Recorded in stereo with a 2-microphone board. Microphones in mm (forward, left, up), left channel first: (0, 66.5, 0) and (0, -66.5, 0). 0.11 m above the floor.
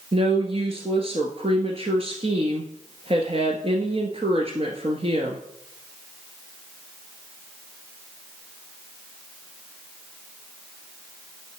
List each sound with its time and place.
0.1 s a woman speaking: 45° right (ahead or behind), 1.5 m